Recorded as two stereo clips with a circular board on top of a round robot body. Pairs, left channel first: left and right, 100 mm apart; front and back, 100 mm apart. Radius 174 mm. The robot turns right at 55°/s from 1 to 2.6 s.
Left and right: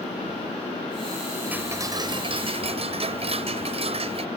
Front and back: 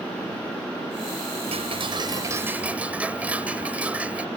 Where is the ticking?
165° right; by 4.3 s 105° right.